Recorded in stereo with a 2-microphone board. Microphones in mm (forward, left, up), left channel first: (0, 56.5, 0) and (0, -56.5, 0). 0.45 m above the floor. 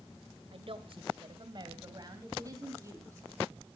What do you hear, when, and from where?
0.5 s a woman speaking: 60° right (ahead or behind), 1.6 m; by 3.3 s 30° right (ahead or behind), 3.5 m